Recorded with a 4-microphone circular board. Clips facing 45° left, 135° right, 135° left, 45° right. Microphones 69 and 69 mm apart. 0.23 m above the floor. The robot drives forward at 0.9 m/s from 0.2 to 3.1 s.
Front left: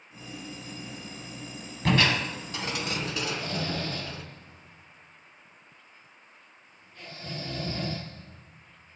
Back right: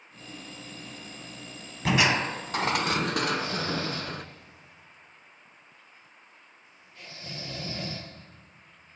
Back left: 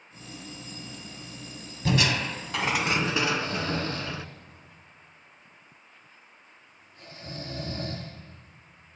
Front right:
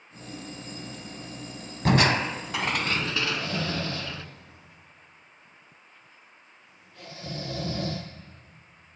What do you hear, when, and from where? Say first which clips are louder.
1.9 s crushing: back right 1 dB, front right 4 dB; 50° right, 0.6 m; by 4.2 s 155° right, 1.0 m
3.3 s snoring: back right 3 dB, back left 2 dB; 50° right, 2.5 m